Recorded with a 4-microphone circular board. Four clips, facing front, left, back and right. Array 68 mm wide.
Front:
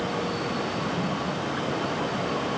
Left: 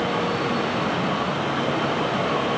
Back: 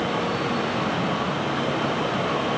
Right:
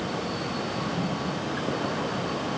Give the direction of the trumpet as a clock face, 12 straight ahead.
I don't hear a trumpet.